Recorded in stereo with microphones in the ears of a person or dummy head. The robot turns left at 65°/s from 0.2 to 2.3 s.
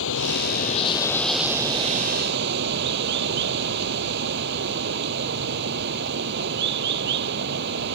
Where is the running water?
70° left; by 8.0 s 65° right.